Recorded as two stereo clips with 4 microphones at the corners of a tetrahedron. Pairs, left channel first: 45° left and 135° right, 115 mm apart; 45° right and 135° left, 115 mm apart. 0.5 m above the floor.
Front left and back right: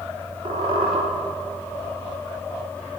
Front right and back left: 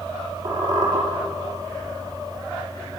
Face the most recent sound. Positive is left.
turn(degrees=-175)